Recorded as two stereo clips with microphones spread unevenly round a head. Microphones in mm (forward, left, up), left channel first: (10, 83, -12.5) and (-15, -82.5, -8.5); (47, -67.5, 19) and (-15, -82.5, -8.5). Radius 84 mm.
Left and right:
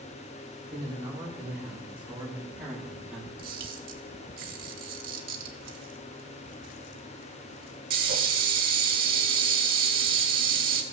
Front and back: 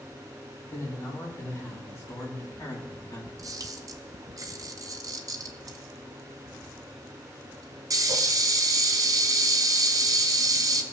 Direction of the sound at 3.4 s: 135° right.